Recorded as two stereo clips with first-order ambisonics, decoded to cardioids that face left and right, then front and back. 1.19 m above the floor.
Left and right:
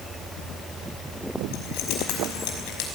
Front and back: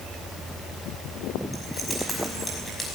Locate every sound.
1.5 s keys jangling: 80° left, 5 m